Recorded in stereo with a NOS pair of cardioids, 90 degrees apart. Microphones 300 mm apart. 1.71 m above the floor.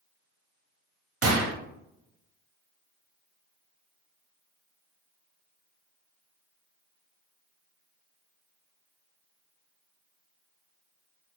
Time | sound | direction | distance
1.2 | a gunshot | 50° right | 1.0 m